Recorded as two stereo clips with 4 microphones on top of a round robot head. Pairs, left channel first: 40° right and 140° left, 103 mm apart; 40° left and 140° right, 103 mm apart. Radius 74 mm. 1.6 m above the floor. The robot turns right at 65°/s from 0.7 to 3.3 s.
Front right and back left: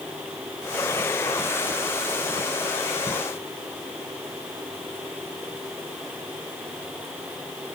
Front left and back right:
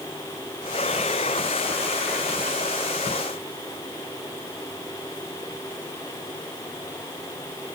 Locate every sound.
Only background noise.